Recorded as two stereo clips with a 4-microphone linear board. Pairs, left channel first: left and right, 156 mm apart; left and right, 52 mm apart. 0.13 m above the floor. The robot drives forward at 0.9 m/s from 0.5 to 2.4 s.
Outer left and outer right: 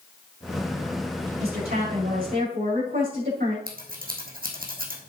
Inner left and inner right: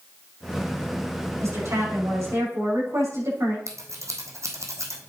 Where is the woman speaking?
70° right (ahead or behind), 6.5 m; by 3.6 s 65° right (ahead or behind), 7 m.